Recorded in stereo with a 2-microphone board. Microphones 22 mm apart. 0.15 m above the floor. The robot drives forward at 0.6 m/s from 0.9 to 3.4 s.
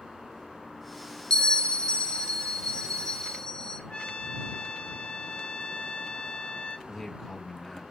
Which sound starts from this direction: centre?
A man speaking, at 6.9 s.